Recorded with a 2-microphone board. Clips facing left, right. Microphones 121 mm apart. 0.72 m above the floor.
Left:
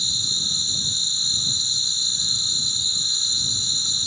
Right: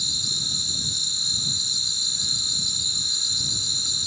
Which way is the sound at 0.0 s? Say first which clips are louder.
Left 1 dB; 5° left (ahead or behind).